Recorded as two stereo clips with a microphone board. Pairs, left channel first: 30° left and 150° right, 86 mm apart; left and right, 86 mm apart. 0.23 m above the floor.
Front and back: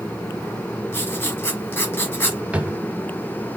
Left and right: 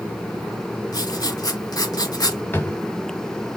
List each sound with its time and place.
0.9 s writing: 85° left, 0.9 m
2.5 s a drawer: 140° left, 0.6 m